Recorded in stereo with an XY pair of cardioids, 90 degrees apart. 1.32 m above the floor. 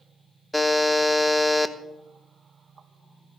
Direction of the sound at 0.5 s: 10° left.